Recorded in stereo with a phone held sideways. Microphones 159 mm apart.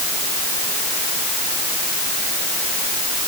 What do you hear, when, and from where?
Only background noise.